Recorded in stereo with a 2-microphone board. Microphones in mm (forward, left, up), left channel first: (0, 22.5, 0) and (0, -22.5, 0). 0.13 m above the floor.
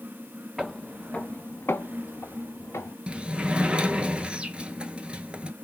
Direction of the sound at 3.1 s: 25° right (ahead or behind).